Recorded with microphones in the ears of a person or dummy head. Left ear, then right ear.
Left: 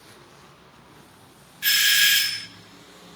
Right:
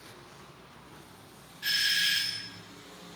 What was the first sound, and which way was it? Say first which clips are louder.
A doorbell: left 8 dB; 35° left (ahead or behind).